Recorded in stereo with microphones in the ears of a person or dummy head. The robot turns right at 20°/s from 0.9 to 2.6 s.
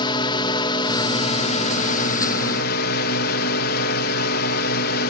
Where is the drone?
30° left; by 5.1 s 65° left.